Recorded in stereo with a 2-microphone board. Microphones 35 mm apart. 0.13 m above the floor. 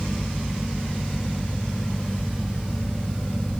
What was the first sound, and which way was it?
Only background noise.